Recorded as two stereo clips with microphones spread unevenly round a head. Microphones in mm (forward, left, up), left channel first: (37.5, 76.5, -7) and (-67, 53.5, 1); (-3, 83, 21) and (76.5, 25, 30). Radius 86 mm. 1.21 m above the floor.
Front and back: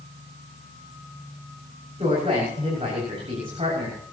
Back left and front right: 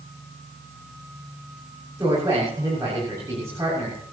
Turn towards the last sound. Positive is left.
turn(degrees=-105)